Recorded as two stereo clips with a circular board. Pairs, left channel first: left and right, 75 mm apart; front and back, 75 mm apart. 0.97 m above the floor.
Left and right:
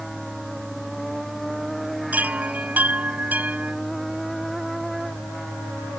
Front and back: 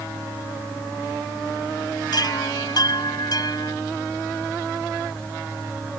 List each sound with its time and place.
2.1 s a chime: 20° right